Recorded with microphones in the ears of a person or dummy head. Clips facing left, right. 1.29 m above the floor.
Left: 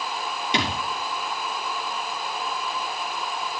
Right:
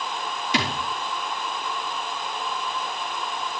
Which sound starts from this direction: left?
A thud, at 0.5 s.